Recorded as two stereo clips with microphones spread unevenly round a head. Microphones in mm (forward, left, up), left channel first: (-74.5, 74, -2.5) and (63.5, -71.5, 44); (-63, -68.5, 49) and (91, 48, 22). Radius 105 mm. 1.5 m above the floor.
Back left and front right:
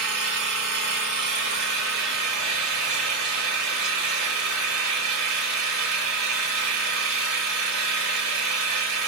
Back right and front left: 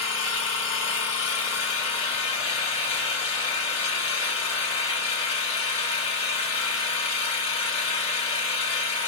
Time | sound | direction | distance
0.0 | an engine running | 85° right | 1.7 m